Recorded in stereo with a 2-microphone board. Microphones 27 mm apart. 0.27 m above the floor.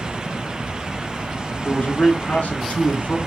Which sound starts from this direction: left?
A man speaking, at 1.6 s.